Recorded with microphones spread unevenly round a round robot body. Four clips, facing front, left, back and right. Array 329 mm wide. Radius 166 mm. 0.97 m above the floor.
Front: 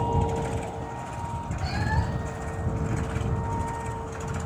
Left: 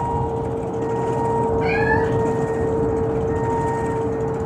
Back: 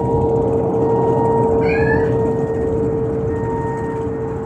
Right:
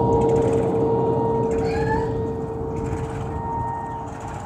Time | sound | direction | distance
0.0 | a vehicle | 150° right | ?
1.6 | a cat meowing | 160° left | ?